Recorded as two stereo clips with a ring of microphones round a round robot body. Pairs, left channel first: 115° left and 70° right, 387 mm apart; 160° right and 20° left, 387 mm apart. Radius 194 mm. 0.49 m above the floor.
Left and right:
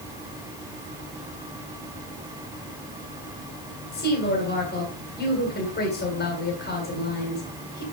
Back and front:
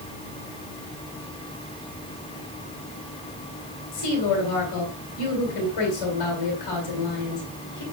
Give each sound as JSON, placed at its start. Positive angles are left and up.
{"t": 3.9, "sound": "a woman speaking", "azimuth_deg": 175, "distance_m": 3.0}